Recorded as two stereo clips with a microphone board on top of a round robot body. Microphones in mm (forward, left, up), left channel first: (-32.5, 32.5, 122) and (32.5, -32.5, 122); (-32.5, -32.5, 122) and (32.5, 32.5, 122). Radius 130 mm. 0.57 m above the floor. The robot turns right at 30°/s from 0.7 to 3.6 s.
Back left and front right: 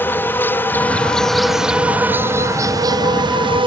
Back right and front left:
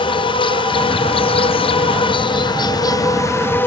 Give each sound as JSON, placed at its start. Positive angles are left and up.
{"t": 0.0, "sound": "an insect", "azimuth_deg": -155}